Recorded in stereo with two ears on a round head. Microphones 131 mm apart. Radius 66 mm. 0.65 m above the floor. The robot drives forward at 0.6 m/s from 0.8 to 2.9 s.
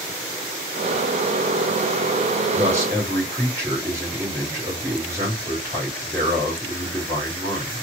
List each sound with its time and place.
2.5 s a man speaking: 20° right (ahead or behind), 2.5 m